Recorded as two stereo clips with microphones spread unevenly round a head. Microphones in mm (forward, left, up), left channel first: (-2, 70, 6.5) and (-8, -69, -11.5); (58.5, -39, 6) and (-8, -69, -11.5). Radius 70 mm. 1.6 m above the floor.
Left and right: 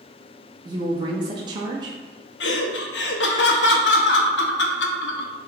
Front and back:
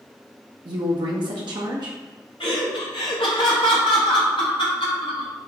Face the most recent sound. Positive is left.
turn(degrees=85)